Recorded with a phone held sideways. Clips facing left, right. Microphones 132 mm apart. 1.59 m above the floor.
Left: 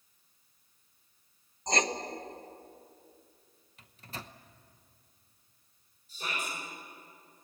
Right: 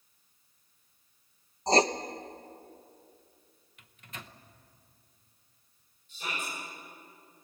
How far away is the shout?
About 8 m.